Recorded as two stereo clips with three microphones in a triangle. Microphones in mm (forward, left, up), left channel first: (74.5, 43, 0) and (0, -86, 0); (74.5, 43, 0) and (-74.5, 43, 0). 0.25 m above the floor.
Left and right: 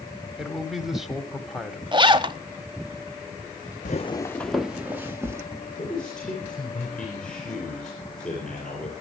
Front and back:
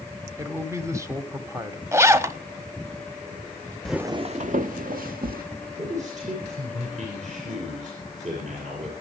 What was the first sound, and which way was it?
A man speaking, 155° left.